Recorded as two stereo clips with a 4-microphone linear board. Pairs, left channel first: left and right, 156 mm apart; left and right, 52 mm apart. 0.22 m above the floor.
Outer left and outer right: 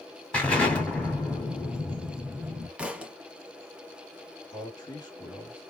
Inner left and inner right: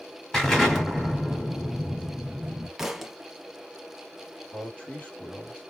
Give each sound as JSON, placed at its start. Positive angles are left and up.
{"t": 0.3, "sound": "an explosion", "side_deg": 10, "distance_m": 1.8}
{"t": 2.8, "sound": "a thud", "side_deg": -10, "distance_m": 0.8}
{"t": 4.5, "sound": "a man speaking", "side_deg": 30, "distance_m": 1.7}